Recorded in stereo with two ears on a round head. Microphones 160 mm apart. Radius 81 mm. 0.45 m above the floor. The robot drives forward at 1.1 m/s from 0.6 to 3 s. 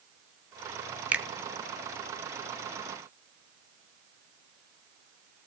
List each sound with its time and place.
1.1 s a finger snap: 10° right (ahead or behind), 0.9 m